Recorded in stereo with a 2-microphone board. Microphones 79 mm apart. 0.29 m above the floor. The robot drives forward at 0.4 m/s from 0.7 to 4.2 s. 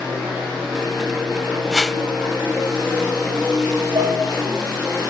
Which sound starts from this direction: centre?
A whoosh, at 1.7 s.